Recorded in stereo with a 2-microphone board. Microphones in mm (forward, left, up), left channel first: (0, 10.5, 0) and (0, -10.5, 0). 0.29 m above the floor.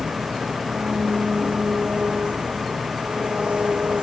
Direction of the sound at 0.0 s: 75° right (ahead or behind).